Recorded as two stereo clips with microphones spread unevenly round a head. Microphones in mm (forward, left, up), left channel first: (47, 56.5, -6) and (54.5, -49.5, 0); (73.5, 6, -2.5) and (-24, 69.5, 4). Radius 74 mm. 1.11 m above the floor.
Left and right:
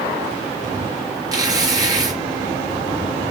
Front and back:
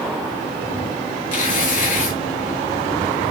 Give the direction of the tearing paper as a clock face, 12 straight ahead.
1 o'clock.